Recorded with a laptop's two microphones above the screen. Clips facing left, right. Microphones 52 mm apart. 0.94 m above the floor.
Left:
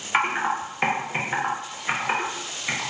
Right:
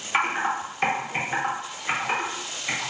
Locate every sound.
0.1 s typing on a keyboard: 15° left (ahead or behind), 0.8 m